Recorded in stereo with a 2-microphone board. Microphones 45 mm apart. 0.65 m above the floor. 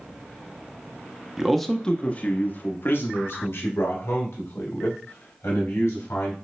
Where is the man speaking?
10° right (ahead or behind), 0.6 m; by 6.3 s 75° left (ahead or behind), 3 m.